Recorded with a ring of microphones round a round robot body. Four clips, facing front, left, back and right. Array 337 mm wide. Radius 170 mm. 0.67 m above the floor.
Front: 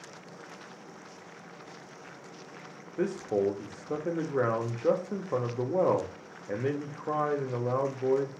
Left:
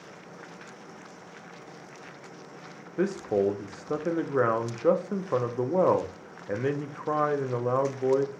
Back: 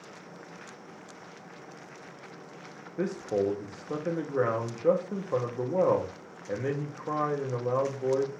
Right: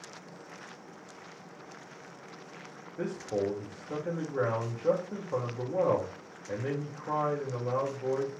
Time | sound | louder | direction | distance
3.0 | a man speaking | left 6 dB, even | 85° left | 0.6 m